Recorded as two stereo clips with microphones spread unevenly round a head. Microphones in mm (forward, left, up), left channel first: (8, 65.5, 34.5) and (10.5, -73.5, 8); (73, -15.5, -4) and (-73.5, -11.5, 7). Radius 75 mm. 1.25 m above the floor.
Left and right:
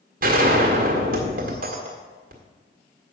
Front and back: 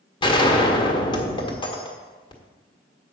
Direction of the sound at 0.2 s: 60° right.